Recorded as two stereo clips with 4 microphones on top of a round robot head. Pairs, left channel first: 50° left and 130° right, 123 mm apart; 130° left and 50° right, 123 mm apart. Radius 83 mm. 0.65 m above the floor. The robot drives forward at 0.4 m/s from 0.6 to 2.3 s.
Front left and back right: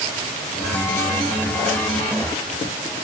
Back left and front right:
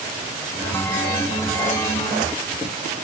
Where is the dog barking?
I don't hear a dog barking.